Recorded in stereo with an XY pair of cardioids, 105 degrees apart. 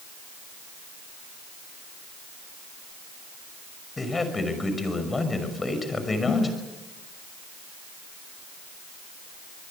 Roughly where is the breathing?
Ahead left.